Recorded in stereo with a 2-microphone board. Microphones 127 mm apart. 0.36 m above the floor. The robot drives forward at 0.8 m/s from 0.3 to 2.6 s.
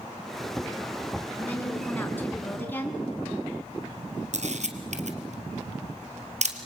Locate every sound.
1.4 s a woman speaking: 15° left (ahead or behind), 5 m
4.3 s a camera shutter: 65° right (ahead or behind), 2 m